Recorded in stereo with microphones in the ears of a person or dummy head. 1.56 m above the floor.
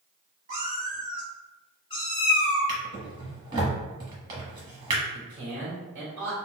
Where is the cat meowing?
40° right (ahead or behind), 1.3 m; by 2.7 s 50° left (ahead or behind), 1.7 m.